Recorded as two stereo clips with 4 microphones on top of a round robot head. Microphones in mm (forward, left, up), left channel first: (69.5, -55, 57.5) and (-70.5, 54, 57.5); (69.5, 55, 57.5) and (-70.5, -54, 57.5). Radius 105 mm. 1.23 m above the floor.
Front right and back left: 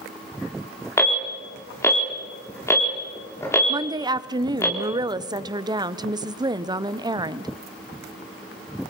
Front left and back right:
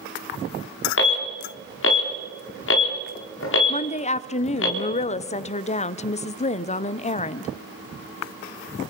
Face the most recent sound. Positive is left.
turn(degrees=80)